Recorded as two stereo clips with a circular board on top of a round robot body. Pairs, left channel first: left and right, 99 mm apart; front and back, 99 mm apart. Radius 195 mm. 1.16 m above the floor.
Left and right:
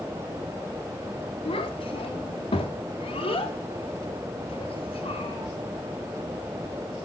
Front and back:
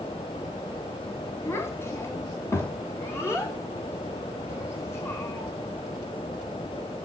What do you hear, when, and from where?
1.4 s a child speaking: 60° left, 1.4 m; by 5.5 s 65° left, 3.5 m